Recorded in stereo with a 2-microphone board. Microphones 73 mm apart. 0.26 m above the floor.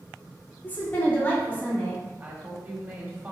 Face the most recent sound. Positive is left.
turn(degrees=-25)  # may be behind; listen again after turning